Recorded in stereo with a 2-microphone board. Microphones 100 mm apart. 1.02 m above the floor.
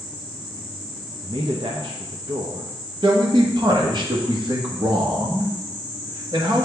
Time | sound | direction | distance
1.2 | a man speaking | 55° right (ahead or behind) | 0.7 m
3.0 | a man speaking | 50° right (ahead or behind) | 1.4 m